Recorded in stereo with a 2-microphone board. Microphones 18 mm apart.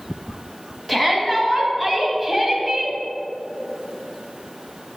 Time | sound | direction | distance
0.9 | a shout | 10° left (ahead or behind) | 1.9 m